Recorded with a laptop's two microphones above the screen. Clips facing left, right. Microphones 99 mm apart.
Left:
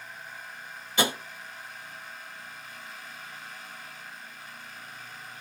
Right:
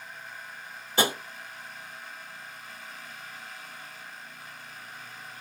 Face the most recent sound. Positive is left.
turn(degrees=-40)  # may be behind; listen again after turning